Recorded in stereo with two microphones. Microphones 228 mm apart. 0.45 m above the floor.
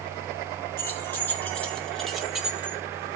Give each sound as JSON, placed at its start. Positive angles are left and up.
{"t": 0.8, "sound": "keys jangling", "side_deg": 10, "distance_m": 2.5}